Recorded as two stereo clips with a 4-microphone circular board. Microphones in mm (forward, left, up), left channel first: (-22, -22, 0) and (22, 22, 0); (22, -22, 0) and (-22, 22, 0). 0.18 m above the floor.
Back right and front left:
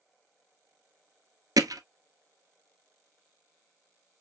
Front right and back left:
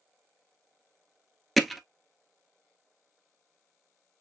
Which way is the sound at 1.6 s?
45° left.